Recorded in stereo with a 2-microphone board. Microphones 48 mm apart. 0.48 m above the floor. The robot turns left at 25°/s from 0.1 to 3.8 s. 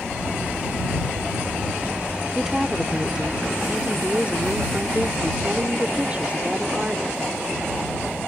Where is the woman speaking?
15° right; by 7.3 s 50° right.